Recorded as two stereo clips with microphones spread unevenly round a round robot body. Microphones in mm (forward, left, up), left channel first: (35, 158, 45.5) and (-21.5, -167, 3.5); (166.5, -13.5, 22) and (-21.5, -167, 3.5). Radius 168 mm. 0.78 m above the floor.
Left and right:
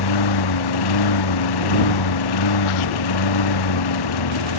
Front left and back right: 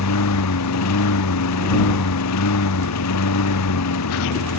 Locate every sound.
0.0 s a lawn mower: 70° left